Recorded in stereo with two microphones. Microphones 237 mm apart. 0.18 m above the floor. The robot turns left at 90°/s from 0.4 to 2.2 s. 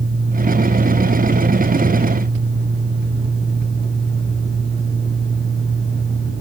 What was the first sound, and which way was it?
Only background noise.